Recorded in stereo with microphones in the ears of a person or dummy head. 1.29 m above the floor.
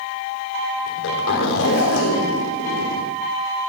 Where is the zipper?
70° left (ahead or behind), 3.5 m.